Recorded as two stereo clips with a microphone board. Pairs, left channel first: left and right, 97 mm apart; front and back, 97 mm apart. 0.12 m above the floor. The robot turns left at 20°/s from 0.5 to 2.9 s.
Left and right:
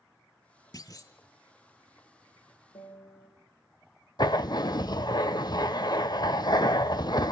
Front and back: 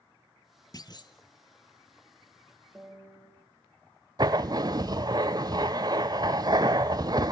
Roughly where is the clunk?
Ahead left.